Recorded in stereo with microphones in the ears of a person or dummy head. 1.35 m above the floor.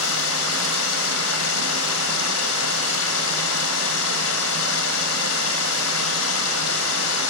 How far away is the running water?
About 4 m.